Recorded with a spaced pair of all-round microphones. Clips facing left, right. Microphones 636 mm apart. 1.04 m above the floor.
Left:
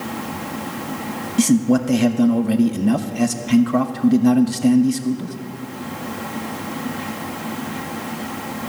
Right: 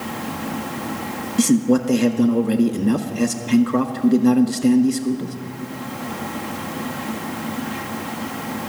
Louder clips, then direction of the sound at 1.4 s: Even; 15° left (ahead or behind).